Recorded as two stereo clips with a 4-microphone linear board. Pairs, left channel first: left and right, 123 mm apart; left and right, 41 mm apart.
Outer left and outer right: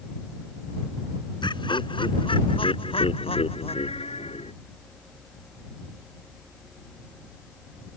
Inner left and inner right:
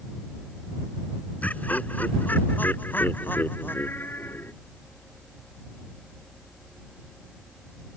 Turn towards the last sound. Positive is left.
turn(degrees=55)  # may be behind; listen again after turning